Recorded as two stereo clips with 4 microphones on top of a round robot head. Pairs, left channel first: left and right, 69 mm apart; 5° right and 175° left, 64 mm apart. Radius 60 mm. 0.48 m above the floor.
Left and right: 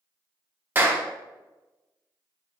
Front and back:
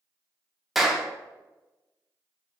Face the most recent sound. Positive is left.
turn(degrees=-100)